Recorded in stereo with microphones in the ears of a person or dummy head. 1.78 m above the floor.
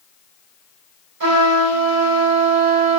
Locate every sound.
1.2 s a trumpet: 55° right (ahead or behind), 3.5 m